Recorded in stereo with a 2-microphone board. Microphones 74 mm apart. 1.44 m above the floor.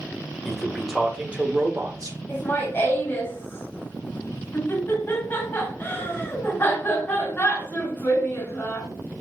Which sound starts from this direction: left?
Laughter, at 2.3 s.